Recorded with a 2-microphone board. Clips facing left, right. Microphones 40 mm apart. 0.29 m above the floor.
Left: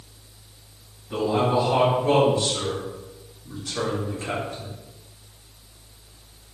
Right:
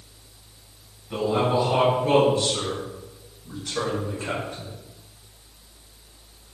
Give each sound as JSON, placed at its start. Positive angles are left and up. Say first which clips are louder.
{"t": 1.1, "sound": "a man speaking", "louder": "left 1 dB", "side_deg": -20, "distance_m": 1.9}